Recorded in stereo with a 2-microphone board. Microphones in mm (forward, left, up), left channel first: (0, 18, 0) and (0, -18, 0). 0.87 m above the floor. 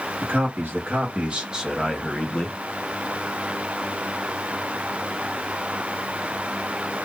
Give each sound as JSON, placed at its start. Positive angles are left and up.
{"t": 0.2, "sound": "a man speaking", "side_deg": -70, "distance_m": 1.7}